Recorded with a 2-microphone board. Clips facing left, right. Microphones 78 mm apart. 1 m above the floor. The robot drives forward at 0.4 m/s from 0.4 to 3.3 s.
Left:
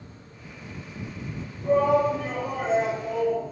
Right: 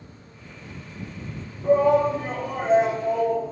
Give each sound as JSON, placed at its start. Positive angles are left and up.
{"t": 1.6, "sound": "a shout", "side_deg": -25, "distance_m": 1.4}